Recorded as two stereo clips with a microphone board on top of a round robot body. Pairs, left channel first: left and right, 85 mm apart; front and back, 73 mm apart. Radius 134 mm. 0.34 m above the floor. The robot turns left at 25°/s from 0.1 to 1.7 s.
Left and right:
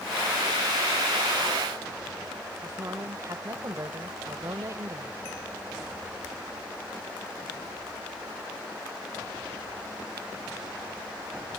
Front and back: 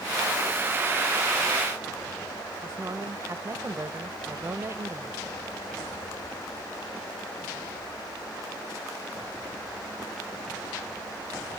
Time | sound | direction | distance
2.6 | a woman speaking | 135° right | ?